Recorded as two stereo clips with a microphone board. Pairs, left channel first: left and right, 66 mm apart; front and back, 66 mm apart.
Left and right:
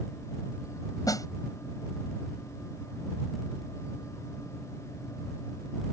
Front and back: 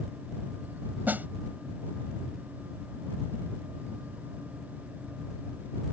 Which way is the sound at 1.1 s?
115° left.